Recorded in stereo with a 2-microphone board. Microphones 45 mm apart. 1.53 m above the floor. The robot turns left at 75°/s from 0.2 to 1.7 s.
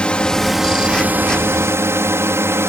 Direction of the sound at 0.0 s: 20° left.